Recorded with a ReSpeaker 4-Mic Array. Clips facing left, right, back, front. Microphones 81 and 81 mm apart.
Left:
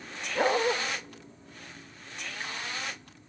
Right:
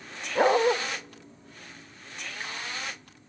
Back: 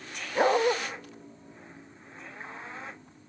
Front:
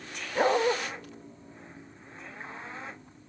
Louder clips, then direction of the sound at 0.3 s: Right 4 dB, back 1 dB; 110° right.